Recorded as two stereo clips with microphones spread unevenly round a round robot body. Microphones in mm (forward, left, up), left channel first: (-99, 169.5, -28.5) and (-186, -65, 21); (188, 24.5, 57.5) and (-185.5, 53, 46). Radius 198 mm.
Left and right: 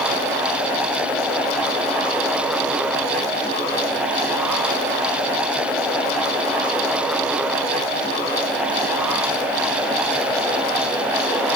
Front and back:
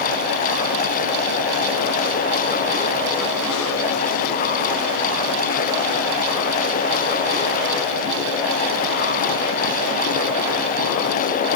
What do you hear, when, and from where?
Only background noise.